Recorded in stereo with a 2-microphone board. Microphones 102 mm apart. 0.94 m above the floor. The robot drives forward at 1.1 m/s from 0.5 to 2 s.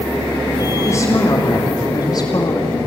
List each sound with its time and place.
0.8 s a woman speaking: 25° left (ahead or behind), 3 m; by 2.8 s 40° left (ahead or behind), 2 m